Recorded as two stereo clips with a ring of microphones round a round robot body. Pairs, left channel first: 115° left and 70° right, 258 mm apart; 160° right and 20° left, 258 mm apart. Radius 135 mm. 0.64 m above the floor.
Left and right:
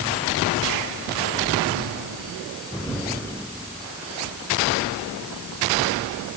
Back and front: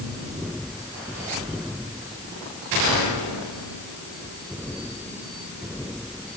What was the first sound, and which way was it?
Only background noise.